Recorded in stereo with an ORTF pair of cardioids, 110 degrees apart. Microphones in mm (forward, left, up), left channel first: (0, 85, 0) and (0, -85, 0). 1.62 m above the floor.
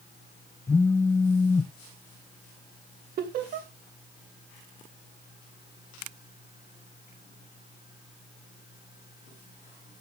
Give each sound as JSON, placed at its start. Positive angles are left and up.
{"t": 0.7, "sound": "a phone buzzing", "azimuth_deg": 15, "distance_m": 0.6}
{"t": 3.2, "sound": "laughter", "azimuth_deg": -60, "distance_m": 1.3}